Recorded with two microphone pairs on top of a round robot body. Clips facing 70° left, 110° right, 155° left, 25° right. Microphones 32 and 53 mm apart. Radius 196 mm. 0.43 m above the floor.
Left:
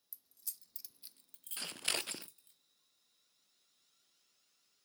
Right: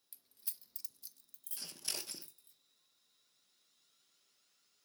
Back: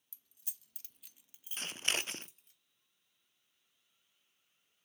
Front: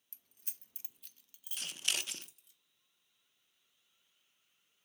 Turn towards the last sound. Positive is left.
turn(degrees=105)